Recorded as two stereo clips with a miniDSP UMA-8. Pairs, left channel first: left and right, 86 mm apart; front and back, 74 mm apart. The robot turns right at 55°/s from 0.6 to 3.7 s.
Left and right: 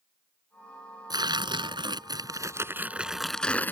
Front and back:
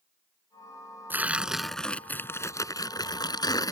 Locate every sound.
1.1 s tearing paper: 120° right; by 3.7 s 25° left